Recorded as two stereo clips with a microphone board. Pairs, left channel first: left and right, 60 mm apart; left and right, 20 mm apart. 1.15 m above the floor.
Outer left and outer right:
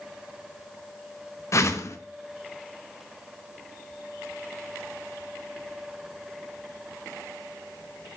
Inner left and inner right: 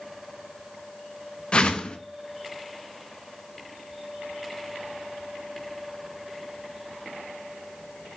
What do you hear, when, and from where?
1.5 s a whoosh: 55° left (ahead or behind), 0.9 m